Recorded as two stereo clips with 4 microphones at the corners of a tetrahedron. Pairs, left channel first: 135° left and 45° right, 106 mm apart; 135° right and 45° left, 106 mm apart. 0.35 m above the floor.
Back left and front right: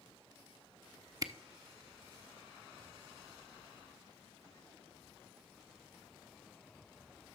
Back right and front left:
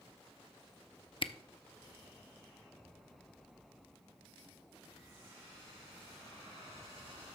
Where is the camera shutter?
100° right, 0.6 m.